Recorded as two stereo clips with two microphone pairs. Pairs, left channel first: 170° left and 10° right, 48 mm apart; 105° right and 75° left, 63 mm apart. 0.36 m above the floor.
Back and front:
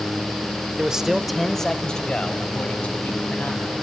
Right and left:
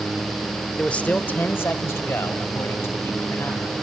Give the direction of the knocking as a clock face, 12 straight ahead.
No knocking in this recording.